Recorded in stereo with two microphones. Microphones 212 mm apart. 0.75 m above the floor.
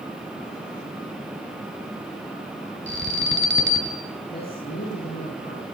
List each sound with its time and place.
2.9 s an alarm: 60° right (ahead or behind), 4 m
4.3 s a man speaking: 45° left (ahead or behind), 7.5 m